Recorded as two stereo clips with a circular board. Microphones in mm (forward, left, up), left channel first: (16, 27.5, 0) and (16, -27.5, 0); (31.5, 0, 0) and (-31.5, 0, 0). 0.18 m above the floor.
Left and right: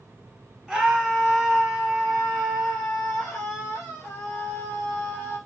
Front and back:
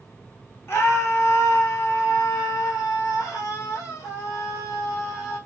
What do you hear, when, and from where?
0.7 s a scream: straight ahead, 1.4 m; by 5.4 s 35° left, 4.5 m